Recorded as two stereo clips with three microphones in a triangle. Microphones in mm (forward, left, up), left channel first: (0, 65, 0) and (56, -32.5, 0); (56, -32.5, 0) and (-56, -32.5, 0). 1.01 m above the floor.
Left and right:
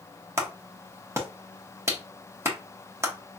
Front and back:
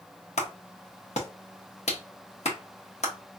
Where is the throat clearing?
No throat clearing in this recording.